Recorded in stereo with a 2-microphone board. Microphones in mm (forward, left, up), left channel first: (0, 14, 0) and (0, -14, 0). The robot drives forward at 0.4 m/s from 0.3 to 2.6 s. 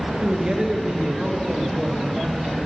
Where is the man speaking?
30° right (ahead or behind), 1.3 m; by 2.6 s 20° right (ahead or behind), 2 m.